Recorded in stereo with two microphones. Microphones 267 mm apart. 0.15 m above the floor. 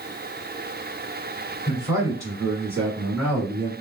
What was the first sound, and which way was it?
A man speaking, 10° right (ahead or behind).